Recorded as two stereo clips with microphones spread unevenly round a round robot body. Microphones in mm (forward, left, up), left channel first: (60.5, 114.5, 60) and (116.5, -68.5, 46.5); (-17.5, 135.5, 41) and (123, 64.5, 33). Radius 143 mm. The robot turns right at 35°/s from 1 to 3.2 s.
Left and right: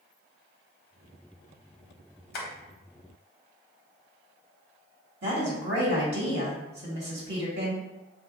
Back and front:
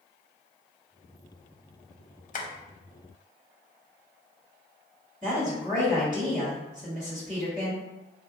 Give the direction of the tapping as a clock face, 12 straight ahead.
8 o'clock.